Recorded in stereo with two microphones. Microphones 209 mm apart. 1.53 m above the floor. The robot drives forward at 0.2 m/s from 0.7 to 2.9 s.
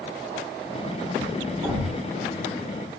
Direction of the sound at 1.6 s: 25° right (ahead or behind).